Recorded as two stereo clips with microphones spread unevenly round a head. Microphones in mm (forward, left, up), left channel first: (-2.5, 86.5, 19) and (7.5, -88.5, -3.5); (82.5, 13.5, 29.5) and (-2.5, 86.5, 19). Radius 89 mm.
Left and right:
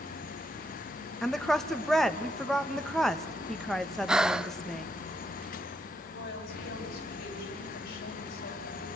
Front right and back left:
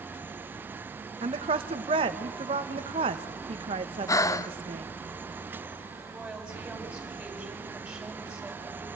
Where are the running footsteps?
No running footsteps in this recording.